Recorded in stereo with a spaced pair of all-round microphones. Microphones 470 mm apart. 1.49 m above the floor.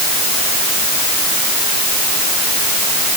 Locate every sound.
Only background noise.